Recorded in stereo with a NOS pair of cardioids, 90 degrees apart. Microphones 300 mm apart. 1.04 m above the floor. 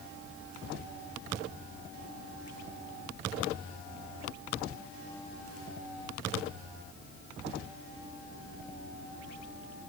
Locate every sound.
Only background noise.